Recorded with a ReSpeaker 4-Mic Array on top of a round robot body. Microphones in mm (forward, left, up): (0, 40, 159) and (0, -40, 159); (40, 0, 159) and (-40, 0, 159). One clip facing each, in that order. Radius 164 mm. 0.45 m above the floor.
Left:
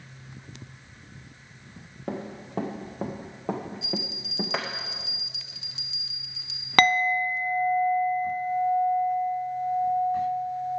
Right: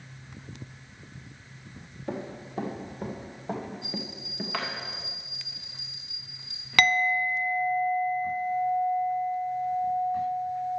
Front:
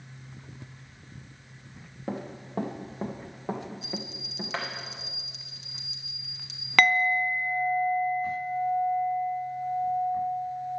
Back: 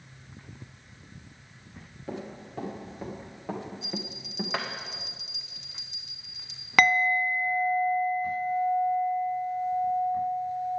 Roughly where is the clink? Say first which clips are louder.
Left 2 dB, even; left.